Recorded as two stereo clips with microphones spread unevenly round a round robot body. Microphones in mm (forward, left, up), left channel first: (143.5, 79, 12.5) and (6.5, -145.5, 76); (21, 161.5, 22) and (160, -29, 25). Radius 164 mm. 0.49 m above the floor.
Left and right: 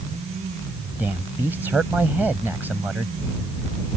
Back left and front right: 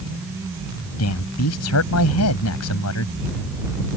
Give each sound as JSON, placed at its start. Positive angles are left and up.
{"t": 1.0, "sound": "a man speaking", "azimuth_deg": 150}